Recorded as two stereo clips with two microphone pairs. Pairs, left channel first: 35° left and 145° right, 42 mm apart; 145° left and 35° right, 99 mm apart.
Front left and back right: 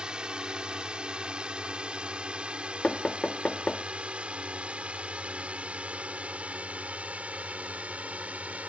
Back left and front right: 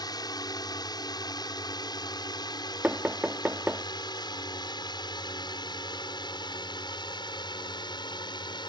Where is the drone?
155° left; by 8.7 s 165° left.